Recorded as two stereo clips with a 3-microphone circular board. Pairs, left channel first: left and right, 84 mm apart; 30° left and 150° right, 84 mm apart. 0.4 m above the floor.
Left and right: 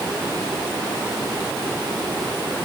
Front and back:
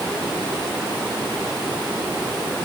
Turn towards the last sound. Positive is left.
No sound to turn to.